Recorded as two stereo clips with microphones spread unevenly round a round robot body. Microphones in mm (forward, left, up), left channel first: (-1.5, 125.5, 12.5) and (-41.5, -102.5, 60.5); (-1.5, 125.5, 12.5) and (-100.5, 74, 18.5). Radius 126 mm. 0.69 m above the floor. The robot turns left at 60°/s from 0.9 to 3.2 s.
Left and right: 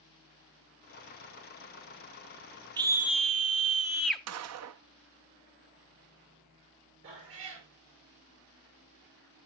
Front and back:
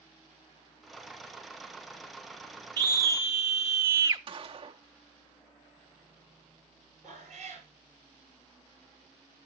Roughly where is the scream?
Behind.